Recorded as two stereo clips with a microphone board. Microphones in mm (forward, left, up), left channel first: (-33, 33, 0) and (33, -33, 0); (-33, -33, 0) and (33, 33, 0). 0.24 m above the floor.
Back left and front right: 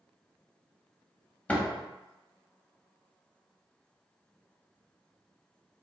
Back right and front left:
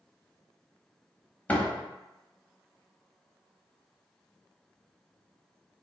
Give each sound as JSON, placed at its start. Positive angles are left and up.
{"t": 1.5, "sound": "a door slam", "azimuth_deg": -175, "distance_m": 0.7}